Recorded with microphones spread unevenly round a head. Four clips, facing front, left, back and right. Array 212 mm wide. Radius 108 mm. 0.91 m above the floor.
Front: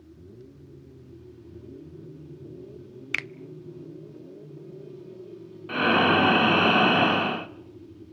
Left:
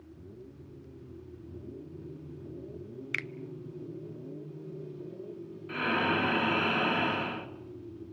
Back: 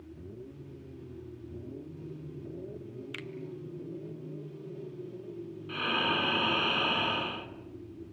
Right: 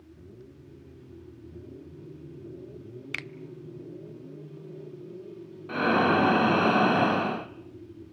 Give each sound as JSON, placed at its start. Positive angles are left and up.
{"t": 3.1, "sound": "a finger snap", "azimuth_deg": -20, "distance_m": 0.6}
{"t": 5.7, "sound": "breathing", "azimuth_deg": -45, "distance_m": 0.9}